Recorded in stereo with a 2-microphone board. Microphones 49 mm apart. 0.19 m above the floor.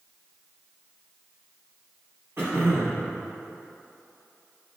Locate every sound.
2.4 s throat clearing: 55° right (ahead or behind), 2.5 m